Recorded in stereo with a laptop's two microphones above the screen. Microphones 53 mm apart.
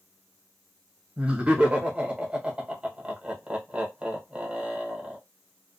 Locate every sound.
1.2 s laughter: 20° right (ahead or behind), 1.2 m